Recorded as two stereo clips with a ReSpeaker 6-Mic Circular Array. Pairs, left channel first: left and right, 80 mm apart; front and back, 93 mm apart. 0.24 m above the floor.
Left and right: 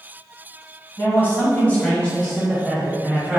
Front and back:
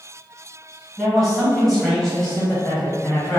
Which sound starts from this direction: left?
A man speaking, at 1.0 s.